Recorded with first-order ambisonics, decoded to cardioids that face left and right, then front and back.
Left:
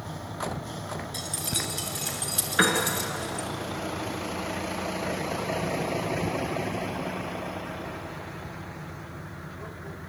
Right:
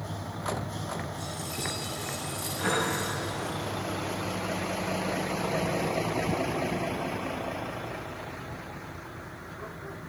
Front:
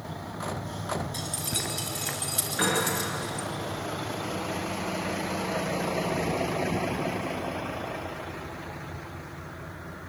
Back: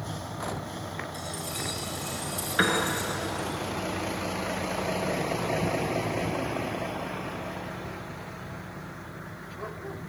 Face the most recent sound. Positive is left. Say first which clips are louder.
# left 5 dB, back 2 dB
turn(degrees=115)